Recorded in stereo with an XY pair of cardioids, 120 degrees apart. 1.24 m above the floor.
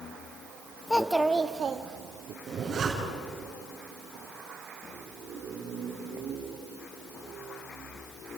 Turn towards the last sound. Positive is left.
turn(degrees=-40)